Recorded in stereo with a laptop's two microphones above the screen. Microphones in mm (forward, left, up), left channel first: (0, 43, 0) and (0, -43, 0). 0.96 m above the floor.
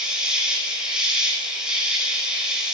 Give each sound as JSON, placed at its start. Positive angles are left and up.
{"t": 0.0, "sound": "an insect", "side_deg": -10, "distance_m": 6.5}